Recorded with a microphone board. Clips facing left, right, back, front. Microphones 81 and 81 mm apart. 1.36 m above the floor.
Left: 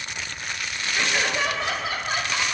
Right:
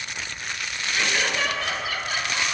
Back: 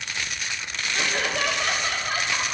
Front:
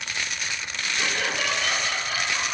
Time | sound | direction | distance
0.9 | laughter | 165° left | 3 m